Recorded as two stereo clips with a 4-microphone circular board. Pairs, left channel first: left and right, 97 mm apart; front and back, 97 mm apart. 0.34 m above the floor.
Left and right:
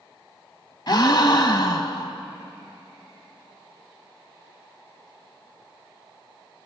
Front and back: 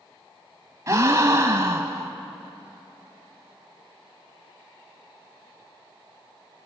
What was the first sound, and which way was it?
A gasp, 130° left.